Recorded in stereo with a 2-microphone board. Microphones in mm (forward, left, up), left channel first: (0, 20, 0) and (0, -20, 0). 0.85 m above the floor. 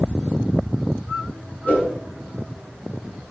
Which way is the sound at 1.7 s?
40° left (ahead or behind).